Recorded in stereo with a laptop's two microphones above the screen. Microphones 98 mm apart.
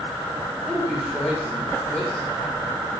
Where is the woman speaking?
5° right (ahead or behind), 2.5 m.